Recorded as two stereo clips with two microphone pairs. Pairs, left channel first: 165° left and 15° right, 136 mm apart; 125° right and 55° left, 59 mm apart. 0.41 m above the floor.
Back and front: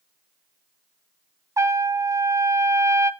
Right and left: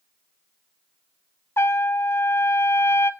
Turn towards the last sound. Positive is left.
turn(degrees=-80)